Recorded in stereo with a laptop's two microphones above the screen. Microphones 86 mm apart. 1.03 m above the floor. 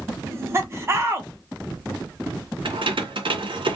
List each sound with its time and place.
0.2 s laughter: 30° right (ahead or behind), 0.7 m
2.6 s keys jangling: 75° right (ahead or behind), 0.6 m